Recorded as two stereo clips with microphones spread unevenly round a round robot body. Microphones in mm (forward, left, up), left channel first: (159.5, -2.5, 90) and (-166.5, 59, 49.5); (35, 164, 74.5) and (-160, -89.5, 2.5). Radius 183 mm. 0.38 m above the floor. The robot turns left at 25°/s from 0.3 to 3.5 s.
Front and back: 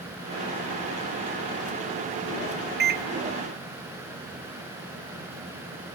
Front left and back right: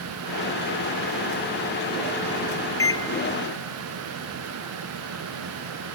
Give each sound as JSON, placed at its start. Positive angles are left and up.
{"t": 2.8, "sound": "a microwave", "azimuth_deg": 145, "distance_m": 0.6}